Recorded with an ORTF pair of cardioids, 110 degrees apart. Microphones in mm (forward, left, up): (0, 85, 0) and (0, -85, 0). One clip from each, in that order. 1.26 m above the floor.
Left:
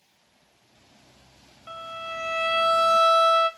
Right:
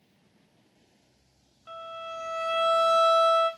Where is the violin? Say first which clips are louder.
Left 3 dB; 25° left, 0.8 m.